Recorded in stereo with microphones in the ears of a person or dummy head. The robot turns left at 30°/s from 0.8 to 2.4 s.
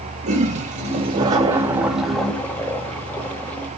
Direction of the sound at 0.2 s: 140° right.